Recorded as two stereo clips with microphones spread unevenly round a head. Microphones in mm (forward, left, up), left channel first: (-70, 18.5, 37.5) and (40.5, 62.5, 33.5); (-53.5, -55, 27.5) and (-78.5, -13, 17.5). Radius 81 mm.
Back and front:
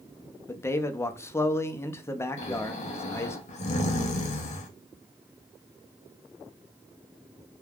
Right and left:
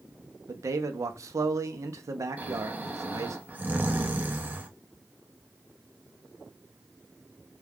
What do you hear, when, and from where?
0.5 s a man speaking: 130° left, 0.5 m
2.4 s snoring: straight behind, 0.7 m